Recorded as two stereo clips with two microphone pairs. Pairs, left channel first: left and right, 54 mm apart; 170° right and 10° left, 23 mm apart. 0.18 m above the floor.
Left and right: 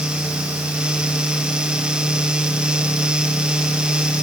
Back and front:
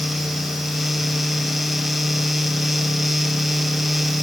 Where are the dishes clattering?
No dishes clattering in this recording.